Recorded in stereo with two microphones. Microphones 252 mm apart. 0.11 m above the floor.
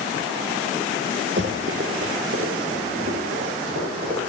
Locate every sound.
1.4 s running footsteps: 50° right (ahead or behind), 1.1 m; by 4.2 s 65° right (ahead or behind), 4.5 m